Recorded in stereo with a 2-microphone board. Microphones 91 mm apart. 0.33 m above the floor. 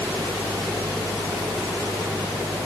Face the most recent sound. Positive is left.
No sound to turn to.